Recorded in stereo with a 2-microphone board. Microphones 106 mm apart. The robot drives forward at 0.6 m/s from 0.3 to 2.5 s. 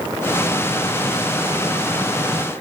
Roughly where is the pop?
I don't hear a pop.